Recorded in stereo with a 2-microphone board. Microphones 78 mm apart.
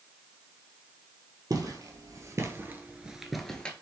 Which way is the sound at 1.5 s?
50° right (ahead or behind).